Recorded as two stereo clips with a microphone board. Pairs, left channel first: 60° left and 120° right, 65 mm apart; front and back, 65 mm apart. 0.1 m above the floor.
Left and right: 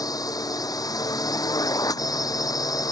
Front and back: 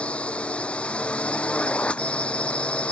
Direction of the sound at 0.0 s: 70° left.